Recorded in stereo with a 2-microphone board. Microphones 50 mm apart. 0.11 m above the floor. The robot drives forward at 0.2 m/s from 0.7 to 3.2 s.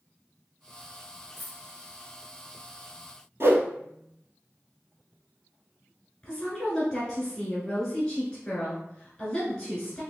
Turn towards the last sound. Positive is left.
turn(degrees=15)  # may be behind; listen again after turning